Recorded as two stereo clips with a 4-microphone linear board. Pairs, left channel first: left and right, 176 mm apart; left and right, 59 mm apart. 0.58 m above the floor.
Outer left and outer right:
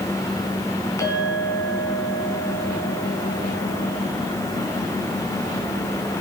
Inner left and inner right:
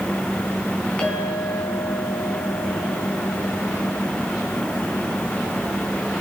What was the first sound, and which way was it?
A clink, 20° left (ahead or behind).